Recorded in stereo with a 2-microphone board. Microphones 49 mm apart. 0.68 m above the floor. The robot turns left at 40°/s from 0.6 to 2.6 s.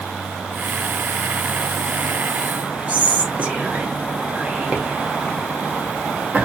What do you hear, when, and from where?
2.9 s whispering: 30° right (ahead or behind), 1.0 m